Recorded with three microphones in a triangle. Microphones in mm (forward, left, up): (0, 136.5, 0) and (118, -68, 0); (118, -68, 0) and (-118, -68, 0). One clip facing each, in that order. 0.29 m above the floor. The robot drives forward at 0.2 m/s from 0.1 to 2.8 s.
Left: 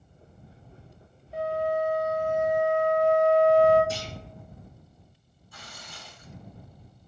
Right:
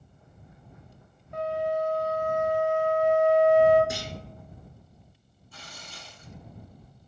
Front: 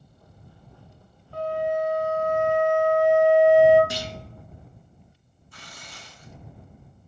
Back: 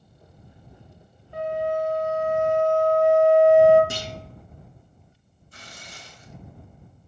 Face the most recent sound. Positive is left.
turn(degrees=-170)